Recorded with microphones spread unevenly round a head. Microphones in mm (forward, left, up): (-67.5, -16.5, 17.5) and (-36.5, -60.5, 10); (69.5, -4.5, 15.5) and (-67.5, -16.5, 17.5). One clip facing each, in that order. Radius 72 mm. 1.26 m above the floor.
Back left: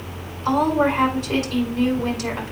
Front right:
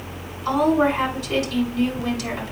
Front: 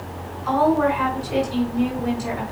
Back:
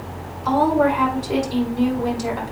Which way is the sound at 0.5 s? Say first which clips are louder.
Even, back 1 dB; 175° left.